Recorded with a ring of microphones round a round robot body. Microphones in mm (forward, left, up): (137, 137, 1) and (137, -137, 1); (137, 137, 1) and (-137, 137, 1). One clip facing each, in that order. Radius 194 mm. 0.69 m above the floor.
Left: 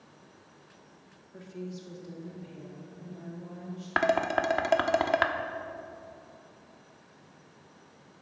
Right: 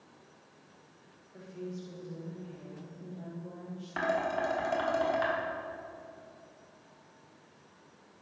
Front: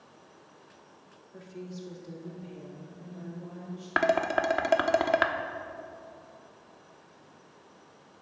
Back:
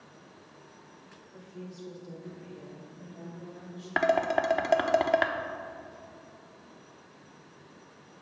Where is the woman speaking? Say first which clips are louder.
Left 1 dB, front 2 dB; 45° left, 1.5 m; by 3.9 s 80° left, 4 m.